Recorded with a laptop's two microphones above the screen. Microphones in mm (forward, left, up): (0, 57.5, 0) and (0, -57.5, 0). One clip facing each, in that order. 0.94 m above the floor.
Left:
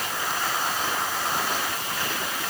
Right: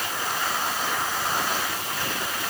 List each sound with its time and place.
Only background noise.